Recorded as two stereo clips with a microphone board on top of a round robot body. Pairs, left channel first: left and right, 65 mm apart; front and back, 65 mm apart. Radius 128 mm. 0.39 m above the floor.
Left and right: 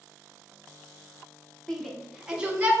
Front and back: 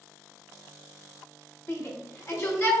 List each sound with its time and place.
1.7 s a shout: 10° left, 1.0 m; by 2.7 s 30° right, 1.2 m